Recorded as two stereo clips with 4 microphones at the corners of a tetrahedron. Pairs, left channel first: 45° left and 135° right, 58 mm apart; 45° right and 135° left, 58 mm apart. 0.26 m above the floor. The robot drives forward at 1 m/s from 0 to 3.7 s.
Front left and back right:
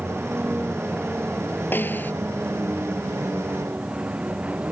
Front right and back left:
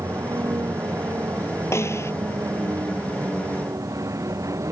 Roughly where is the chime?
No chime in this recording.